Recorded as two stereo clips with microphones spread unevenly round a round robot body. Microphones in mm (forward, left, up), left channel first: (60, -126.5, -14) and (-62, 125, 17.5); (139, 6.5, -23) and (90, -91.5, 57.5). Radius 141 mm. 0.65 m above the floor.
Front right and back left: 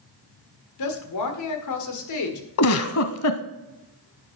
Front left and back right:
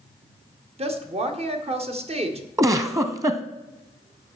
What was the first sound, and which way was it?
A woman speaking, 70° right.